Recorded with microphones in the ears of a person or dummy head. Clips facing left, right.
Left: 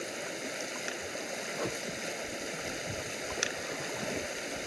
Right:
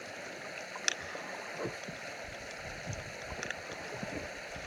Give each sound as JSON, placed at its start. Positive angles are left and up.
{"t": 0.0, "sound": "running water", "side_deg": 50}